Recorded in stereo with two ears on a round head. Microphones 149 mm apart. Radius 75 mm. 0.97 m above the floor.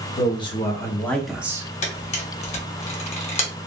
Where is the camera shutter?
45° left (ahead or behind), 0.9 m.